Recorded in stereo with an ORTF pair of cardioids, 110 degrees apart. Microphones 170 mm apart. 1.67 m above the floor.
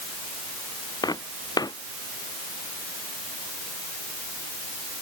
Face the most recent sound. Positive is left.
turn(degrees=25)